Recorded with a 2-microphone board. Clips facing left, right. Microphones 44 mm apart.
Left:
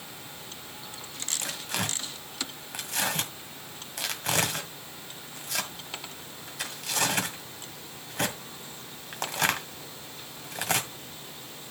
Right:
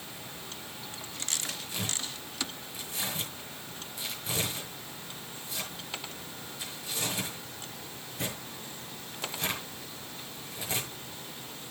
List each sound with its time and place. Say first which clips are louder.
1.4 s tearing paper: left 4 dB; 80° left, 1.9 m